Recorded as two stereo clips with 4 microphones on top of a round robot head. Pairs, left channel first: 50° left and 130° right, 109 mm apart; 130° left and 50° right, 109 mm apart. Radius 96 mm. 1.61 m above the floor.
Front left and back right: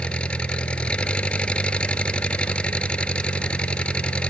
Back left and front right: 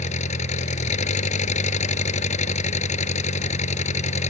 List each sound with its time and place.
0.0 s an engine running: 130° left